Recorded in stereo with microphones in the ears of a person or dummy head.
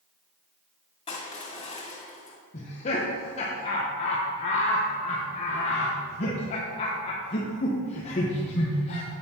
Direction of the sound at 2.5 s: 35° left (ahead or behind).